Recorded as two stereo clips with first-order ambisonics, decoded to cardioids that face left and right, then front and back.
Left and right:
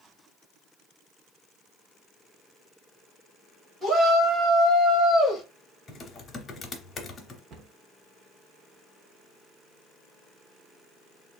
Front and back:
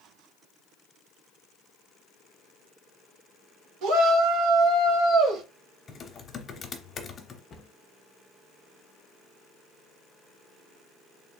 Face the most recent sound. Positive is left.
turn(degrees=-50)